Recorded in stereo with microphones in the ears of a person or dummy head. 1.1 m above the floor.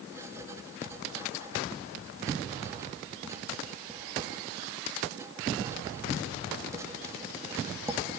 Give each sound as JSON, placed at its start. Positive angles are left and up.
{"t": 0.1, "sound": "writing", "side_deg": -25, "distance_m": 1.6}